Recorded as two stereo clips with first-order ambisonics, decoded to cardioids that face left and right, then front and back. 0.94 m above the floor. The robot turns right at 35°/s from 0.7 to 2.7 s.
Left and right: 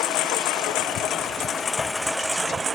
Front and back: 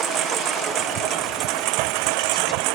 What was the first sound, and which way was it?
A lawn mower, 125° left.